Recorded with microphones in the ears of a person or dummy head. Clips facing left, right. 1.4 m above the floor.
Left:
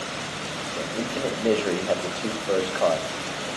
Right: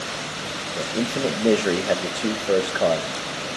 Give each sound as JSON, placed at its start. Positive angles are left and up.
{"t": 0.8, "sound": "a man speaking", "side_deg": -15, "distance_m": 1.5}